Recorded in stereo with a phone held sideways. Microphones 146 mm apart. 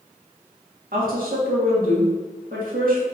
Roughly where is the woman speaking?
Right.